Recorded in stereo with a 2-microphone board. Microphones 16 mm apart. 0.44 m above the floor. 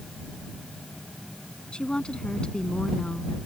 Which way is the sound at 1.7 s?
70° left (ahead or behind).